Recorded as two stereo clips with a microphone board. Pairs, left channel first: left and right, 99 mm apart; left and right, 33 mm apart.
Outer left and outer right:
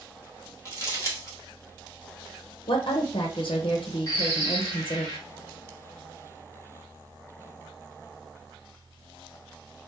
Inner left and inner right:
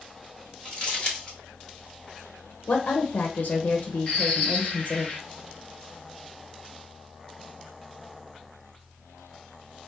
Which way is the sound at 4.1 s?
35° left (ahead or behind).